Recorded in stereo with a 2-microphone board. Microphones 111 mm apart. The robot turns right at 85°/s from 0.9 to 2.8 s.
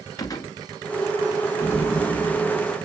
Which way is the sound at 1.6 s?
20° left (ahead or behind).